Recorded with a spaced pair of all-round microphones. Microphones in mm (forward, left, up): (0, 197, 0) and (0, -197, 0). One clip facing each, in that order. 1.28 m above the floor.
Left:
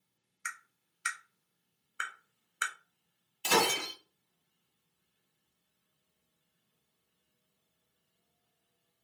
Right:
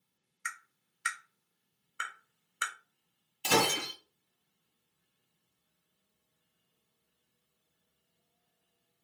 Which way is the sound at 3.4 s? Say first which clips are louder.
Right 1 dB; 55° right (ahead or behind).